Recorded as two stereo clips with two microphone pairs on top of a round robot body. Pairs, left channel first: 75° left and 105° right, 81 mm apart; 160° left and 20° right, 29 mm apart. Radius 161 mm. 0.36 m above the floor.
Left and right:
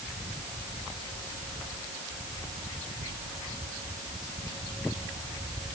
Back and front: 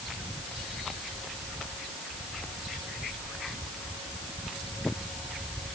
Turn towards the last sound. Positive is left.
No sound to turn to.